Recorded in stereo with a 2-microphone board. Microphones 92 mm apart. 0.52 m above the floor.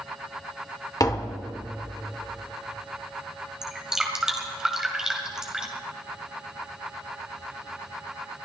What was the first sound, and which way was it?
Tapping, 40° left (ahead or behind).